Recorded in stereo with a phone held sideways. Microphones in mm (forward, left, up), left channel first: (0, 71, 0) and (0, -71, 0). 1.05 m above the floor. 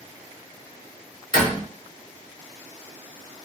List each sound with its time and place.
1.3 s a door slam: 35° left (ahead or behind), 1.7 m